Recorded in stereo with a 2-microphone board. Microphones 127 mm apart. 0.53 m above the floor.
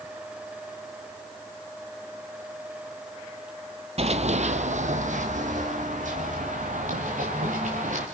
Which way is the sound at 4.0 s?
55° right (ahead or behind).